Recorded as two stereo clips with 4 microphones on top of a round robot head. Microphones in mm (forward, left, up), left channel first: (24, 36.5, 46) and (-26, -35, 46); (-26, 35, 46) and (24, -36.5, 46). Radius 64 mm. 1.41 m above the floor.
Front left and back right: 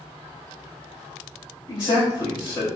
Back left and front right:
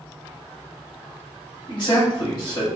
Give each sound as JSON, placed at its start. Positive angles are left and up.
{"t": 1.7, "sound": "a man speaking", "azimuth_deg": 90, "distance_m": 1.6}